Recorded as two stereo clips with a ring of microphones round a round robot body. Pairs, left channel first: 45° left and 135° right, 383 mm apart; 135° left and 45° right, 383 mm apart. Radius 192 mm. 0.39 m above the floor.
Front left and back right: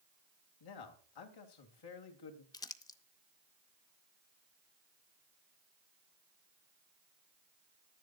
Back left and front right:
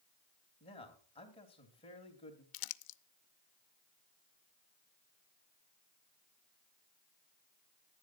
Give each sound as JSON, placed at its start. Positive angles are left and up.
{"t": 0.6, "sound": "a man speaking", "azimuth_deg": 60, "distance_m": 2.5}
{"t": 2.5, "sound": "crumpling", "azimuth_deg": 125, "distance_m": 0.6}